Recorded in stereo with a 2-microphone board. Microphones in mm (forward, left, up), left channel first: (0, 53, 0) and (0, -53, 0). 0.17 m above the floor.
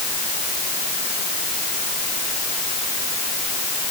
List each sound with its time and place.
Only background noise.